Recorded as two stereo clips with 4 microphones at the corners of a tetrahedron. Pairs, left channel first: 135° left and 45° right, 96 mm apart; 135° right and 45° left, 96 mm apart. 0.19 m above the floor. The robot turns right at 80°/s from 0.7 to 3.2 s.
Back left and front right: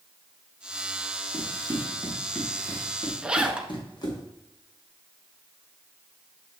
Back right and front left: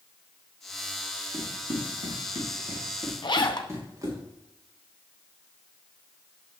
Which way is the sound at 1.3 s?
10° right.